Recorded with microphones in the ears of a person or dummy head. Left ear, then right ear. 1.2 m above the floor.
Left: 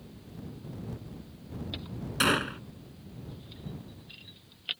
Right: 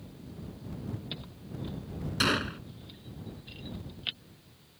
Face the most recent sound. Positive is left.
turn(degrees=15)  # may be behind; listen again after turning